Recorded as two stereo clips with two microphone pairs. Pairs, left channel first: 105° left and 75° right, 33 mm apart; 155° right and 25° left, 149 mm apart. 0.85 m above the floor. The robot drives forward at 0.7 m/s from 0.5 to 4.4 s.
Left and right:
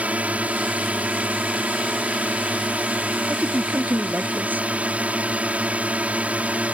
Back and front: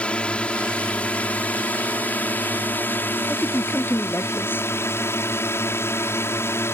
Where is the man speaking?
75° right.